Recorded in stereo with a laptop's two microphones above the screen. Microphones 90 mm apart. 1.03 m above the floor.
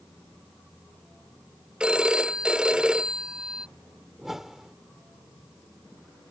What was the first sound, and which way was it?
A phone ringing, 10° right (ahead or behind).